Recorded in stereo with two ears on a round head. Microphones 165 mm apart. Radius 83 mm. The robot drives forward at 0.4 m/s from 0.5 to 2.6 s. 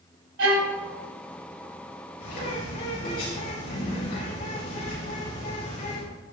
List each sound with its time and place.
0.4 s a violin: 70° right (ahead or behind), 2.5 m; by 0.8 s 75° right (ahead or behind), 2.5 m
2.2 s a bird: 55° left (ahead or behind), 5.5 m